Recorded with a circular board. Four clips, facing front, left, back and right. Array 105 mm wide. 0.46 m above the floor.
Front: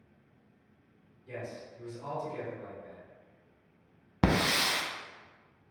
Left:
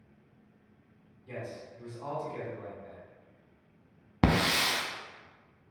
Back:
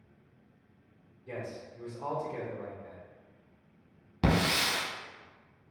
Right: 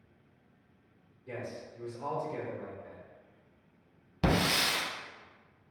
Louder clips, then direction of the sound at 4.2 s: Left 2 dB, even; 55° left.